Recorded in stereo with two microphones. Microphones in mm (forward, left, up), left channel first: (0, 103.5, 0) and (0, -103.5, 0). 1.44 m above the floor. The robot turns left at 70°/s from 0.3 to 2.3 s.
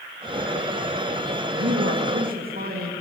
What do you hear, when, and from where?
1.5 s a man speaking: 80° right, 2.5 m; by 2.9 s 135° right, 2.5 m